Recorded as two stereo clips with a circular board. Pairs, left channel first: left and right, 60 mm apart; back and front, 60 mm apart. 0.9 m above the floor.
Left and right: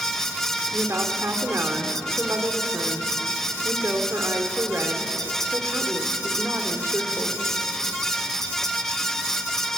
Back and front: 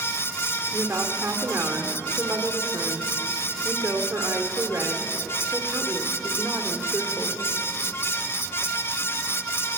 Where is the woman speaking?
45° right, 3 m.